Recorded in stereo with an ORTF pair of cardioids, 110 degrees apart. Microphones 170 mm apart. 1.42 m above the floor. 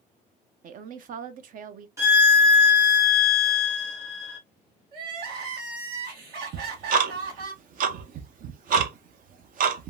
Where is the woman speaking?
55° right, 0.7 m.